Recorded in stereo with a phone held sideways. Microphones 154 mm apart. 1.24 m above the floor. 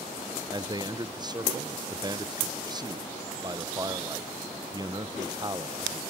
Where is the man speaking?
30° right (ahead or behind), 0.6 m.